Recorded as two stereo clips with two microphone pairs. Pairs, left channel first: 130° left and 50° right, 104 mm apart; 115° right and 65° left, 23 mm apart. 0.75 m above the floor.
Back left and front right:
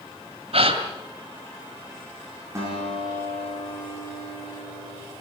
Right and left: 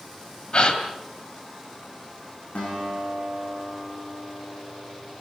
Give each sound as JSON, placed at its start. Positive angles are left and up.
{"t": 0.5, "sound": "a gasp", "azimuth_deg": -70, "distance_m": 2.5}
{"t": 2.5, "sound": "a guitar", "azimuth_deg": -110, "distance_m": 8.5}